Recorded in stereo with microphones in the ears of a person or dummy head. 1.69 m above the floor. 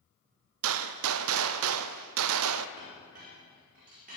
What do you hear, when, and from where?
0.6 s a gunshot: 75° right (ahead or behind), 0.5 m
2.8 s a clink: 40° right (ahead or behind), 4.5 m